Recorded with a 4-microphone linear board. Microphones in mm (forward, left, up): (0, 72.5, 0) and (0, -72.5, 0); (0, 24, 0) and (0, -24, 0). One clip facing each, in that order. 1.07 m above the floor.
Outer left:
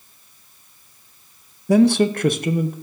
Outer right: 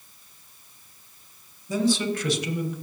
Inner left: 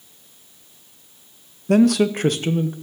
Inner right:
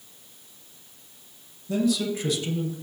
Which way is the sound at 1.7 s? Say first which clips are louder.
Outer left 9 dB, inner left 9 dB; 70° left (ahead or behind).